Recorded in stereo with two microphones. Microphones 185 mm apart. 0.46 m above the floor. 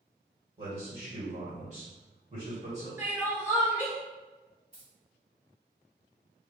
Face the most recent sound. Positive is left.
turn(degrees=-35)  # may be behind; listen again after turning